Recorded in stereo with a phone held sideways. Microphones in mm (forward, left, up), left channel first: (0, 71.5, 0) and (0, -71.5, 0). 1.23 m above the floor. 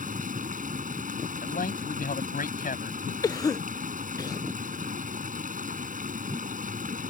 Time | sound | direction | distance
0.0 | running water | 70° right (ahead or behind) | ?
1.4 | a man speaking | 90° left | ?
3.2 | a cough | 25° left (ahead or behind) | ?